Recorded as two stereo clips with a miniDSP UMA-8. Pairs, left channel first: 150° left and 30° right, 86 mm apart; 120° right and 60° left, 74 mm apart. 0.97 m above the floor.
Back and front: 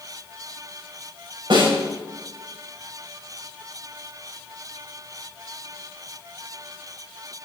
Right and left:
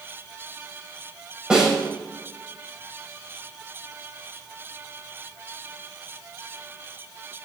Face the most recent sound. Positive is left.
turn(degrees=-20)